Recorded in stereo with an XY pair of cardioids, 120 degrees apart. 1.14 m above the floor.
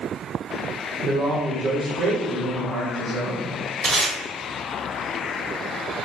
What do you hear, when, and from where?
1.0 s a man speaking: 55° right, 1.2 m
3.8 s tape being pulled: 50° right, 1.3 m